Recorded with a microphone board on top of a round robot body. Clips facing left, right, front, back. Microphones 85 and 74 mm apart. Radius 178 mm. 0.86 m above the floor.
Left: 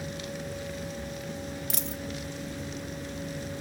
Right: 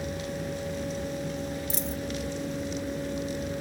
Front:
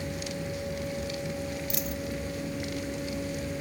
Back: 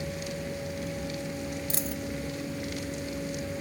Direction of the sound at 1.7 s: 120° left.